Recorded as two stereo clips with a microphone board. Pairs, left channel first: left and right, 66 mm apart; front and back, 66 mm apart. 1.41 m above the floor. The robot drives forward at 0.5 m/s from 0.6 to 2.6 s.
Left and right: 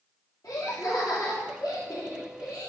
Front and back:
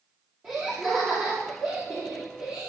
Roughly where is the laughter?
Behind left.